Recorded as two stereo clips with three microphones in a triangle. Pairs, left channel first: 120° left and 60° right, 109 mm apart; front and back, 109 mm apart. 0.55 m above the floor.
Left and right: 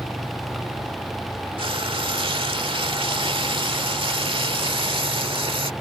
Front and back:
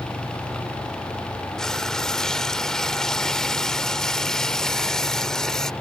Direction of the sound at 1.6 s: 85° right.